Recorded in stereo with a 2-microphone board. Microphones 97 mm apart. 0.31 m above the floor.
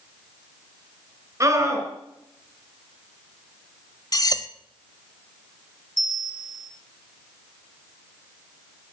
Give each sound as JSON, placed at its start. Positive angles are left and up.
{"t": 1.4, "sound": "a scream", "side_deg": -40, "distance_m": 3.0}
{"t": 4.1, "sound": "cutlery clinking", "side_deg": 40, "distance_m": 0.6}
{"t": 6.0, "sound": "a bell", "side_deg": 40, "distance_m": 1.5}